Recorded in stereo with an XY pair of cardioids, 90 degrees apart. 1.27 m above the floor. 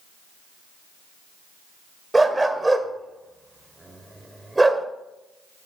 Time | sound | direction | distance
2.1 | a dog barking | 15° right | 2.5 m